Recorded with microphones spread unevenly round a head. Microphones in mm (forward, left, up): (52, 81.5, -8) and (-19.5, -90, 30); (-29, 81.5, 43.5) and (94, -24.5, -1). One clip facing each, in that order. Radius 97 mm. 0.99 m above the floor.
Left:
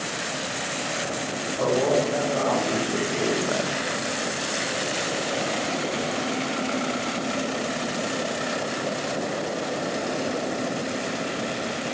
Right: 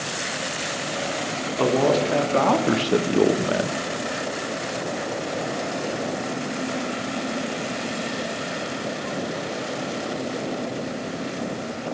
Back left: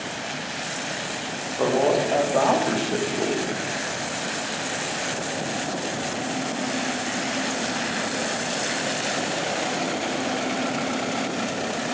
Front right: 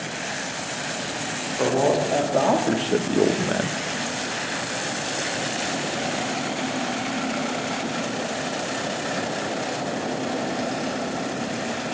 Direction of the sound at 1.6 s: 130° right.